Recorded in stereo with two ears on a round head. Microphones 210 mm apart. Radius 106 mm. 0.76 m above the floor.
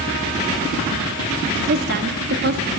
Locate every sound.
1.7 s a woman speaking: 45° right (ahead or behind), 1.4 m